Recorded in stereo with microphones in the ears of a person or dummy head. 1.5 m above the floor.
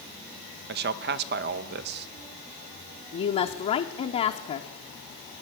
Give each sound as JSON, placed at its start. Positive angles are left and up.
{"t": 0.7, "sound": "a man speaking", "side_deg": -50, "distance_m": 0.5}
{"t": 3.1, "sound": "a woman speaking", "side_deg": 30, "distance_m": 0.6}